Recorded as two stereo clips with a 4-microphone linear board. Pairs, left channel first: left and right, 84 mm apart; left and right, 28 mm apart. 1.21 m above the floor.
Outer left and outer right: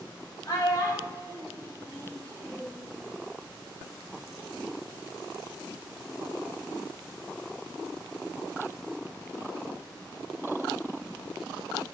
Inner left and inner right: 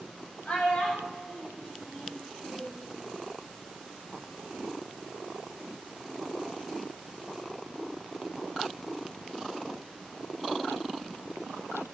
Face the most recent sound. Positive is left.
turn(degrees=25)  # may be behind; listen again after turning